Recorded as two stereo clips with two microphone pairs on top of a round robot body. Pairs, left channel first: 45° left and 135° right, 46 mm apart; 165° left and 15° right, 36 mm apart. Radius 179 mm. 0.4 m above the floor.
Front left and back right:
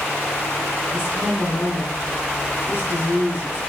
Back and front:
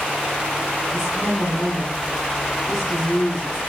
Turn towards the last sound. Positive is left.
turn(degrees=60)